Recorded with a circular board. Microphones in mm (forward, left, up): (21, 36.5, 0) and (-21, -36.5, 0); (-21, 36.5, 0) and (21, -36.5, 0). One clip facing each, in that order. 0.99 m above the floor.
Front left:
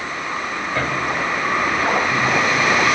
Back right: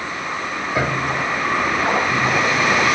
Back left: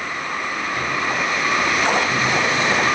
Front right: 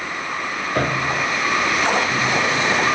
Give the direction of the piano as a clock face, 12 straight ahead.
1 o'clock.